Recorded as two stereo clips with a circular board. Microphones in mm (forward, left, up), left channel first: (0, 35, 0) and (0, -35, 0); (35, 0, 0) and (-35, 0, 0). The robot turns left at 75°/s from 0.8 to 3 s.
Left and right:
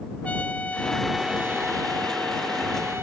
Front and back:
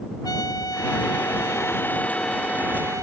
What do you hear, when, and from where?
0.2 s a trumpet: 20° left; by 3.0 s 145° right